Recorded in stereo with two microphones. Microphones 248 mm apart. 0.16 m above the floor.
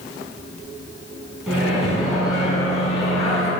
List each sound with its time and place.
1.5 s a microwave: centre (ahead or behind), 1.1 m